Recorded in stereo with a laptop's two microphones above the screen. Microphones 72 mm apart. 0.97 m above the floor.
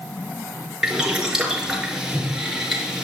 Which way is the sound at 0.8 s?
5° right (ahead or behind).